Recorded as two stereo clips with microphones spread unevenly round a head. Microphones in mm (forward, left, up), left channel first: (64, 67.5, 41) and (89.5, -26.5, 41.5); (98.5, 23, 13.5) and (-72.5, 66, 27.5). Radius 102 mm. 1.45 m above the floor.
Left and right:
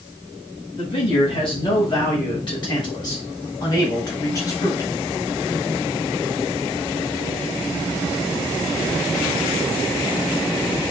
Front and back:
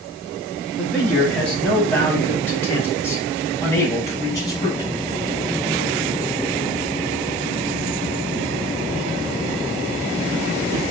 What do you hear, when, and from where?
0.8 s a man speaking: 75° left, 6 m; by 4.9 s 50° left, 4.5 m